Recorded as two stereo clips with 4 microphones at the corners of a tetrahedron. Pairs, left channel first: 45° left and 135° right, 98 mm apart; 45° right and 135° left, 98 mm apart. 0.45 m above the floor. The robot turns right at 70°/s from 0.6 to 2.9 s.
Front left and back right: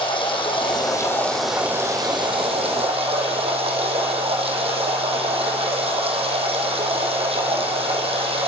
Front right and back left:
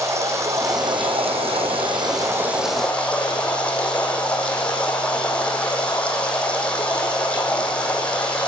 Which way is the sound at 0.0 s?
75° left.